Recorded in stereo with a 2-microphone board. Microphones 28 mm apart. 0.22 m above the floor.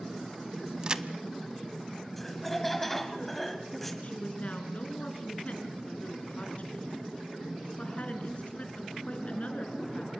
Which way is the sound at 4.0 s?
50° left (ahead or behind).